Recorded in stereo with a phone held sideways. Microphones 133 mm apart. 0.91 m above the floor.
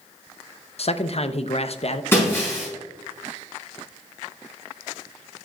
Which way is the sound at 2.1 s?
20° left (ahead or behind).